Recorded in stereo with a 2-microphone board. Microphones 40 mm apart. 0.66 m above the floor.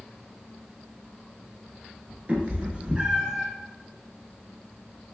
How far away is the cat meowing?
About 0.9 m.